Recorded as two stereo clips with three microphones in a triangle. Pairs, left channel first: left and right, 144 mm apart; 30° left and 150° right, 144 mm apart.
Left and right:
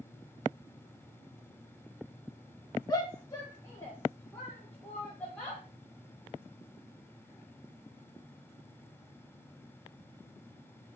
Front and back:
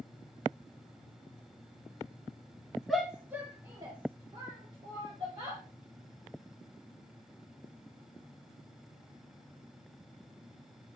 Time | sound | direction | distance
2.9 | a shout | 120° left | 1.2 m